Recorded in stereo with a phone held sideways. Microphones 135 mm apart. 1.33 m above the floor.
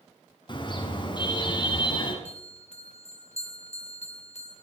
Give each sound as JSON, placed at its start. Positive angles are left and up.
{"t": 0.5, "sound": "a car horn", "side_deg": 40, "distance_m": 6.5}
{"t": 2.2, "sound": "a bell", "side_deg": 60, "distance_m": 6.5}